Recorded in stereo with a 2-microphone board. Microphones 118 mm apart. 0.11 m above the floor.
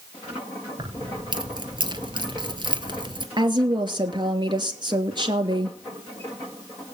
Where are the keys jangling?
40° right (ahead or behind), 1.6 m.